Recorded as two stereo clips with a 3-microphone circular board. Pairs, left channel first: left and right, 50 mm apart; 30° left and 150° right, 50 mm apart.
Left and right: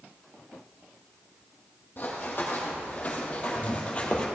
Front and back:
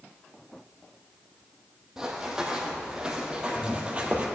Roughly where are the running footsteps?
Behind left.